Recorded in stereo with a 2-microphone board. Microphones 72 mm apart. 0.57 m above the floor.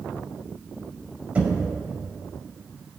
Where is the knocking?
20° right (ahead or behind), 2.5 m.